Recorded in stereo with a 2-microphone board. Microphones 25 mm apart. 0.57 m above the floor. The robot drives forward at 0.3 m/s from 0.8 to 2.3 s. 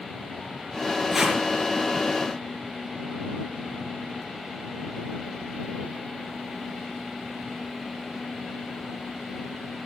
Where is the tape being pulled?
5° right (ahead or behind), 5.5 m.